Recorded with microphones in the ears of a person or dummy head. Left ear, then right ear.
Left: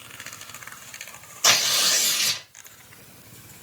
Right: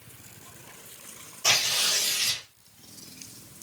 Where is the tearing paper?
75° left (ahead or behind), 1.9 m.